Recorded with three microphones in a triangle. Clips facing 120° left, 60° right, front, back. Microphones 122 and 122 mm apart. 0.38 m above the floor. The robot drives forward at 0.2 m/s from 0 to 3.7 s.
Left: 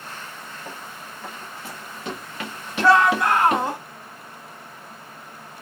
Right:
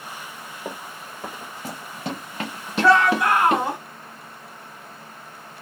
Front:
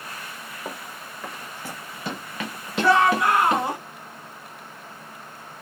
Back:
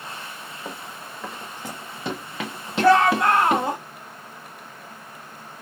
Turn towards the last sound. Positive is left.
turn(degrees=-150)